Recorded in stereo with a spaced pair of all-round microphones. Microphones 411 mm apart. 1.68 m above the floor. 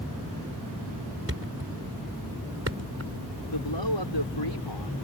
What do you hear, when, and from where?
1.3 s a thud: 35° right (ahead or behind)
3.5 s a man speaking: 90° left